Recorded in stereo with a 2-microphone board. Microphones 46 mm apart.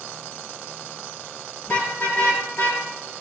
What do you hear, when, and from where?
1.6 s a car horn: 40° left (ahead or behind), 5 m; by 2.8 s 50° left (ahead or behind), 4 m